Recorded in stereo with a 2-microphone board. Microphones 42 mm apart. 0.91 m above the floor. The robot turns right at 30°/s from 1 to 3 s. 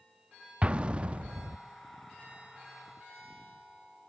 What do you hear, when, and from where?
0.6 s an explosion: 25° right (ahead or behind), 0.5 m; by 1.6 s 40° right (ahead or behind), 0.5 m